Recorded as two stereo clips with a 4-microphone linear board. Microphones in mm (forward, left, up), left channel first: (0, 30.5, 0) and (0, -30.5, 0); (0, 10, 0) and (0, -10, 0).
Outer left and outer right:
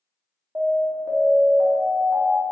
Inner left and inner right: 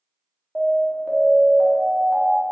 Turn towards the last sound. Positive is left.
turn(degrees=-60)  # may be behind; listen again after turning